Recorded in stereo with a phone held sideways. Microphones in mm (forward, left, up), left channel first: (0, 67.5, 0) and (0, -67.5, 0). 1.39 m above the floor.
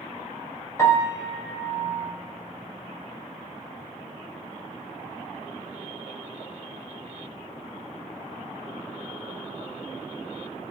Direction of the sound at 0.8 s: 20° left (ahead or behind).